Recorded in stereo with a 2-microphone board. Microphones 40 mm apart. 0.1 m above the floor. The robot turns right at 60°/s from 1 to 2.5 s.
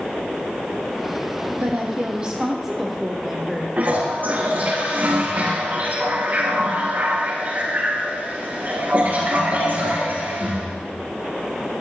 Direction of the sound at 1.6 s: 65° right.